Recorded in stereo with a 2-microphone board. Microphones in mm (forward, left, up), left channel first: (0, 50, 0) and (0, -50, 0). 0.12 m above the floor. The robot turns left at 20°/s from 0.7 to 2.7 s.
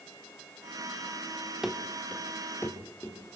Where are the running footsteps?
5° right (ahead or behind), 1.6 m; by 3.2 s 30° left (ahead or behind), 3.5 m.